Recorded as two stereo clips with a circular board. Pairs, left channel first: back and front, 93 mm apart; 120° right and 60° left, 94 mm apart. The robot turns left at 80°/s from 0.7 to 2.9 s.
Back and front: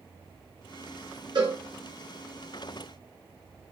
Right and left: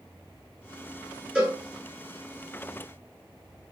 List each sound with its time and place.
1.4 s a cowbell: 15° right, 1.7 m; by 1.6 s 35° right, 1.7 m